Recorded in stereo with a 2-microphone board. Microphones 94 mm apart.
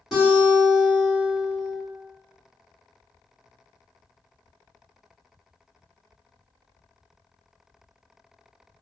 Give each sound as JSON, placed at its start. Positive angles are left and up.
{"t": 0.1, "sound": "a guitar", "side_deg": -5, "distance_m": 1.7}